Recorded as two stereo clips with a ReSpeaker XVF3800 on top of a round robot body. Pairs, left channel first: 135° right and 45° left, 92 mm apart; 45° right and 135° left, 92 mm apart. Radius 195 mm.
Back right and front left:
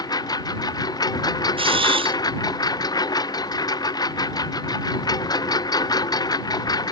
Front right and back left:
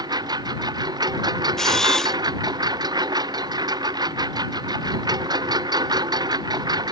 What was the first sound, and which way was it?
A lawn mower, straight behind.